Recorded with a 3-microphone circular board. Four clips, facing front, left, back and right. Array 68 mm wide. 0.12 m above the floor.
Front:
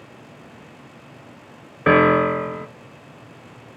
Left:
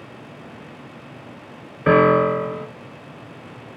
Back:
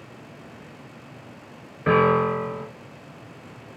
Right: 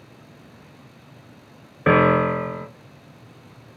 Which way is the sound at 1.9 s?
25° right.